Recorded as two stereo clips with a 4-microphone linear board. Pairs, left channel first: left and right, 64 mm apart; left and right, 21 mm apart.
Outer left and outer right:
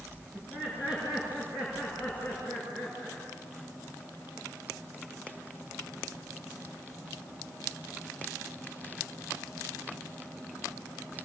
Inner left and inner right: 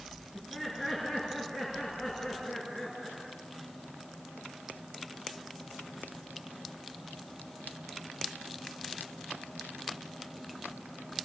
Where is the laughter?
15° right (ahead or behind), 9 m; by 3.2 s 5° right (ahead or behind), 8.5 m.